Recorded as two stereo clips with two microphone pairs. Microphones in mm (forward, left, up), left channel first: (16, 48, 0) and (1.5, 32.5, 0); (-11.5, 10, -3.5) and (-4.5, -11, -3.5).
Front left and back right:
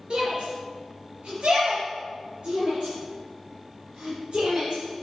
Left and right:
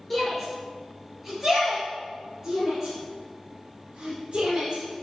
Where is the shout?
165° right, 3.5 m; by 4.8 s 115° right, 4.5 m.